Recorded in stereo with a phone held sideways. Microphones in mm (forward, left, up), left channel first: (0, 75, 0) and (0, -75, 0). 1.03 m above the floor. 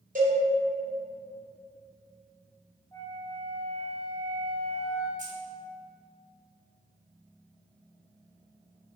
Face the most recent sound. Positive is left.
turn(degrees=-60)  # may be behind; listen again after turning